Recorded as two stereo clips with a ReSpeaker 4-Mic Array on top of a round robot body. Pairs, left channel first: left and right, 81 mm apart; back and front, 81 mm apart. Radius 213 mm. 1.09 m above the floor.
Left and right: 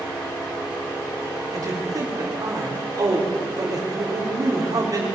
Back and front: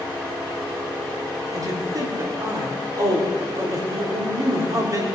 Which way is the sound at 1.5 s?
50° right.